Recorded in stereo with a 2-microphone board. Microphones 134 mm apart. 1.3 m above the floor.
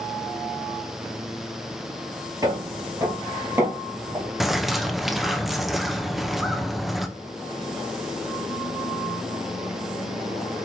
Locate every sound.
2.4 s footsteps: 25° right (ahead or behind), 1.4 m; by 4.3 s 15° right (ahead or behind), 2 m
4.4 s a bird: centre (ahead or behind), 0.5 m